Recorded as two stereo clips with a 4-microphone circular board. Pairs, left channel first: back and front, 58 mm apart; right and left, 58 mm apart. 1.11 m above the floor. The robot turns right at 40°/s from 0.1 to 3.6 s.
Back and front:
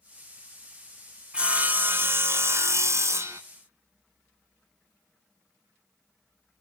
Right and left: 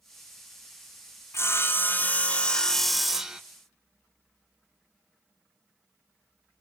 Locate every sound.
1.3 s sawing: 65° right, 0.9 m; by 3.4 s 20° left, 0.9 m